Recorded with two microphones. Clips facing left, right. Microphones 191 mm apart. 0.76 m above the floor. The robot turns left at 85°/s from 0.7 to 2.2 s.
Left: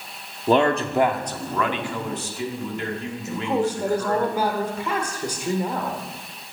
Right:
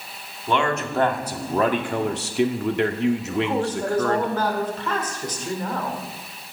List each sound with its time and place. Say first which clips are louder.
0.5 s a man speaking: left 4 dB; 40° left, 1.3 m; by 4.3 s 90° right, 1.3 m
3.3 s a man speaking: even; 10° left (ahead or behind), 2 m